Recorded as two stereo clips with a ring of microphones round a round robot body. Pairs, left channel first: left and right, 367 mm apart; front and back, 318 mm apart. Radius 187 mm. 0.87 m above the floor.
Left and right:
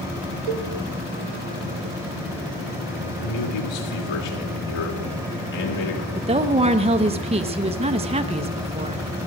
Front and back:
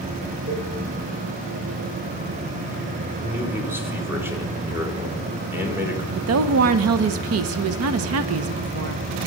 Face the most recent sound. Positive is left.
turn(degrees=-160)